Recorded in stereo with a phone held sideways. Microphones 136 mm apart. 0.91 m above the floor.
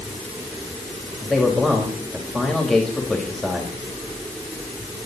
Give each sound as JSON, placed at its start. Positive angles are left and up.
{"t": 1.2, "sound": "a man speaking", "side_deg": 0, "distance_m": 4.0}